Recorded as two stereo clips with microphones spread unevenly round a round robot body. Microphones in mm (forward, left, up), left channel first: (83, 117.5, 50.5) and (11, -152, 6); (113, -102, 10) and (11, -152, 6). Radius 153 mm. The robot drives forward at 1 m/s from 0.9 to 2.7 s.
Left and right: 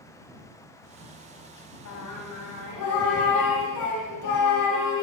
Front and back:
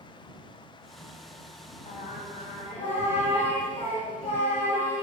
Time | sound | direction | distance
1.9 | singing | 55° left | 4.5 m